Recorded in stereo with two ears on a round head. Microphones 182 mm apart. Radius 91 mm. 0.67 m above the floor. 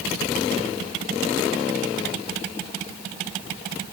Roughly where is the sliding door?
No sliding door in this recording.